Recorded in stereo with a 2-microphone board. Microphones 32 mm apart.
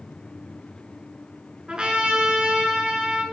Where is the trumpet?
30° right (ahead or behind), 2 m.